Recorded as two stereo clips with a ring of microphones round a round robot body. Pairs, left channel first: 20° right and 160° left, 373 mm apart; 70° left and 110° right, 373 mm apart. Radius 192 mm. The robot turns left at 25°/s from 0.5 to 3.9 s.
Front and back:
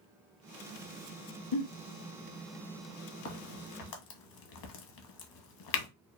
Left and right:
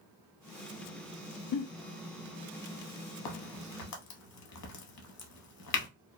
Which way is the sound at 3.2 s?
35° left.